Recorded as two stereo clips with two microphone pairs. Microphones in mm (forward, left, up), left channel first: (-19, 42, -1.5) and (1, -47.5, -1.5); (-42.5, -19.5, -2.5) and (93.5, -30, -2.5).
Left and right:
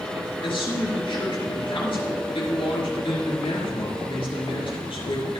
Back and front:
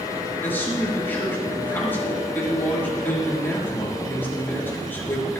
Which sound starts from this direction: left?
A man speaking, at 0.4 s.